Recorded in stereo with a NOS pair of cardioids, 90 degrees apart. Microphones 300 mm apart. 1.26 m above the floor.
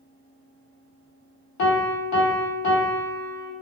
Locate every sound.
1.6 s a piano: 65° left, 0.9 m